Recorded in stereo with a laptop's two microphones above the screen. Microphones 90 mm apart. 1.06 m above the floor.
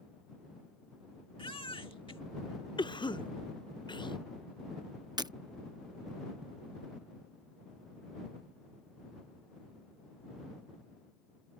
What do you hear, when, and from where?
1.4 s a baby crying: 80° left
2.8 s a cough: 60° left (ahead or behind)
5.2 s breaking glass: 50° right (ahead or behind)